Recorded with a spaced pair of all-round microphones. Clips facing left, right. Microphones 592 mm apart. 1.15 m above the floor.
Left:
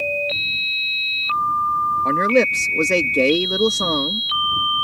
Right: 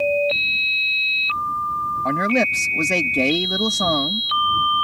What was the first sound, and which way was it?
A man speaking, 15° right (ahead or behind).